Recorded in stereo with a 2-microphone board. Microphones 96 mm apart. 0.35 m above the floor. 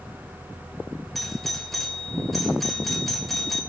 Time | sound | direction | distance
1.1 | a doorbell | centre (ahead or behind) | 1.6 m